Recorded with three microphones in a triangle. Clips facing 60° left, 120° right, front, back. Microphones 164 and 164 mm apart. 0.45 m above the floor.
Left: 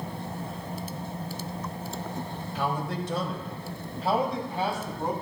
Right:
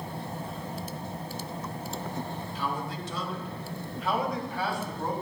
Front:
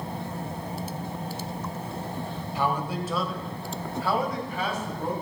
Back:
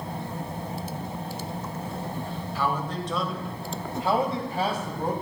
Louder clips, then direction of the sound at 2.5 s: Left 5 dB, front 1 dB; 70° left.